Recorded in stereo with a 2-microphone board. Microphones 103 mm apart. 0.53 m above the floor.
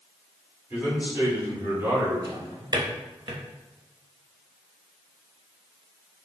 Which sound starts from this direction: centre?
A man speaking, at 0.7 s.